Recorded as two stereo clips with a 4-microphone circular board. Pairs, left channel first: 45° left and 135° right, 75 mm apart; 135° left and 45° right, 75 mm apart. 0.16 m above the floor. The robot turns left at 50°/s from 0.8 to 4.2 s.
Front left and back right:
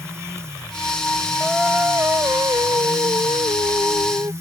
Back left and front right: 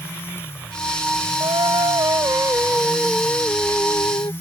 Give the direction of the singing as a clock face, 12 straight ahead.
1 o'clock.